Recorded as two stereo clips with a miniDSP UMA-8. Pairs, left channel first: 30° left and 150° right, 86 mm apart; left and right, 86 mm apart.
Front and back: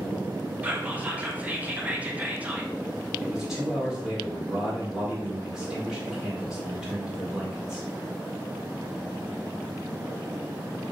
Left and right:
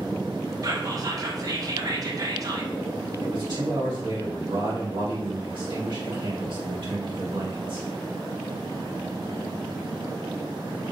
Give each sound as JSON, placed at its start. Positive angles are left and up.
{"t": 0.6, "sound": "whispering", "azimuth_deg": -85, "distance_m": 0.6}
{"t": 3.2, "sound": "a man speaking", "azimuth_deg": -65, "distance_m": 1.4}